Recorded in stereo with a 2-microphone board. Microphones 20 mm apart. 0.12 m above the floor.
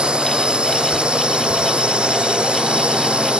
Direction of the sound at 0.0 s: 50° right (ahead or behind).